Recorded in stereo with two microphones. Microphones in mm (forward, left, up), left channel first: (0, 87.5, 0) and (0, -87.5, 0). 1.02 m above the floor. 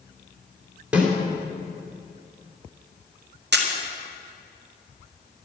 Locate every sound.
0.9 s a snare drum: 10° right (ahead or behind), 3 m
3.5 s a camera shutter: 75° right (ahead or behind), 1.9 m